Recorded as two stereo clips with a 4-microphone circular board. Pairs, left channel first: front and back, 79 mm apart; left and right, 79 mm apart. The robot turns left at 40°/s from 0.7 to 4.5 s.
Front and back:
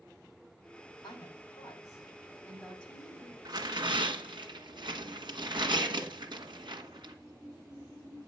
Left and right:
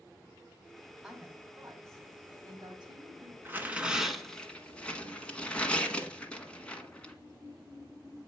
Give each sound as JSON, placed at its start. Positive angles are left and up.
{"t": 1.0, "sound": "a woman speaking", "azimuth_deg": -5, "distance_m": 3.0}
{"t": 3.5, "sound": "tearing paper", "azimuth_deg": -150, "distance_m": 1.3}